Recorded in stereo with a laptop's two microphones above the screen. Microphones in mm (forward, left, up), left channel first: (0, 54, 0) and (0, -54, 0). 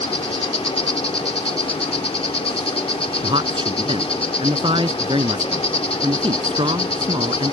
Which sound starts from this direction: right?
A man speaking, at 3.2 s.